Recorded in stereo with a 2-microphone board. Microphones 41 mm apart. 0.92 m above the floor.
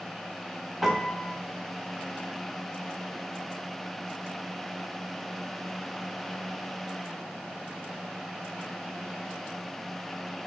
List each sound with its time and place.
0.8 s a piano: 5° right (ahead or behind), 0.6 m